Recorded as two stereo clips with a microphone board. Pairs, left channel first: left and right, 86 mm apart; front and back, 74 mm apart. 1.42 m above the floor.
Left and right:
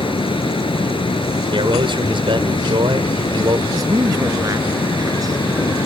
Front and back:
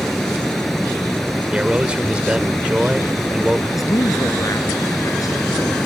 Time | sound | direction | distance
0.0 | running water | 85° left | ?
1.5 | a man speaking | 105° right | ?
3.7 | a man speaking | 45° right | ?